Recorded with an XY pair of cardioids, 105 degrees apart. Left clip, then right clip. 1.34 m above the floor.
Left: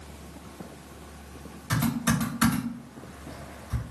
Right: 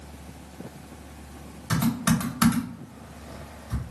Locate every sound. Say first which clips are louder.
1.7 s typing on a keyboard: right 1 dB; 25° right, 1.8 m